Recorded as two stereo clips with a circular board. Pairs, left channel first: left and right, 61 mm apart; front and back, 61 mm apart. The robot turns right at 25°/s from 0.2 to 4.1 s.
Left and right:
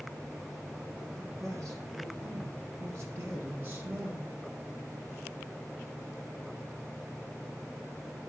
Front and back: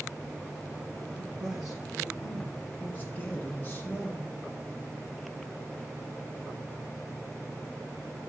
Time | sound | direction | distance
1.0 | a man speaking | 110° right | 3 m